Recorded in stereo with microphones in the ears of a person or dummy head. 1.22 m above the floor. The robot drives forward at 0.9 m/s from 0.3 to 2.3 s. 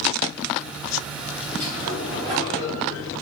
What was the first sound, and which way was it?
A sliding door, 30° right (ahead or behind).